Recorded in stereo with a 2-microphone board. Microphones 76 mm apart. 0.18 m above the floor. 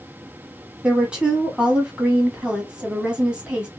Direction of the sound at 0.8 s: 15° right (ahead or behind).